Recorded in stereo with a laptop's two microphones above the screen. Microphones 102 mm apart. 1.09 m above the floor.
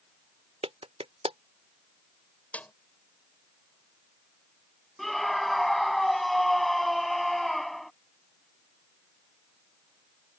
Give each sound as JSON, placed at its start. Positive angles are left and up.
{"t": 0.6, "sound": "a clap", "side_deg": -75}
{"t": 2.5, "sound": "a snare drum", "side_deg": 15}
{"t": 5.0, "sound": "a scream", "side_deg": 0}